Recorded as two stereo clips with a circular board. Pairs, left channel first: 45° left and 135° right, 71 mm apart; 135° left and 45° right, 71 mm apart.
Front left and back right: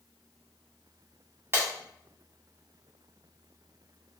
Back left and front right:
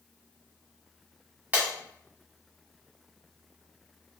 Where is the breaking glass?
100° right, 1.0 m.